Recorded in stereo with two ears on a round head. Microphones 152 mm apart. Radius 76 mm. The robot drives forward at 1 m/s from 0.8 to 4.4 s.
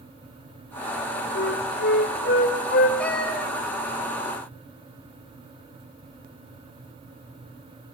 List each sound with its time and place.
1.4 s a flute: 80° left, 2.5 m; by 2.9 s 55° left (ahead or behind), 3 m
3.0 s a cat meowing: 10° left (ahead or behind), 4.5 m